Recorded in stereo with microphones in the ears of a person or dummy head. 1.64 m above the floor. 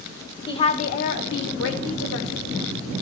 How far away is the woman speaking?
About 1.1 m.